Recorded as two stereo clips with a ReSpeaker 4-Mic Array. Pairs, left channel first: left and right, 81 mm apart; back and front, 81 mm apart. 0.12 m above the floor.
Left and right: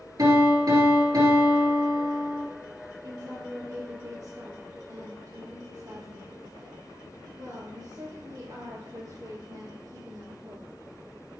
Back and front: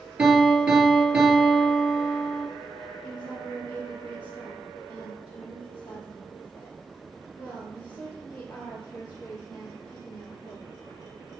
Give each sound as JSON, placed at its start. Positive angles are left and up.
{"t": 0.2, "sound": "a piano", "azimuth_deg": -75, "distance_m": 2.5}
{"t": 3.0, "sound": "a woman speaking", "azimuth_deg": -115, "distance_m": 2.5}